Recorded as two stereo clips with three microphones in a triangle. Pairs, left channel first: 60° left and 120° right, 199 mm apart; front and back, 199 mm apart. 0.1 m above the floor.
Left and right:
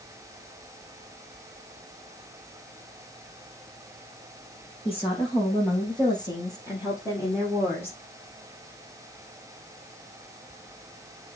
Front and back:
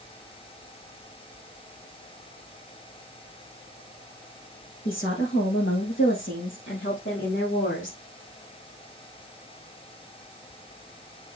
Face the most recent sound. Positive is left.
turn(degrees=-20)